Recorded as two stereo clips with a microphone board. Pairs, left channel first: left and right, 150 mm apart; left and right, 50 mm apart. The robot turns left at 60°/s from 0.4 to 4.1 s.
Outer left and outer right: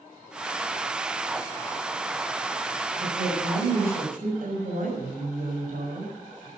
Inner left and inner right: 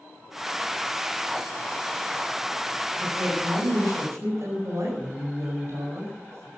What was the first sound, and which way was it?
A woman speaking, 50° right.